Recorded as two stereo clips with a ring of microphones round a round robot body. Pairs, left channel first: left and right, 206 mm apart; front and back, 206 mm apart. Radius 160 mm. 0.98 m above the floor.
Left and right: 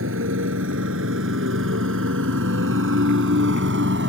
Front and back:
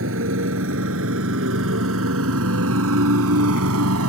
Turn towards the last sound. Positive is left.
turn(degrees=-145)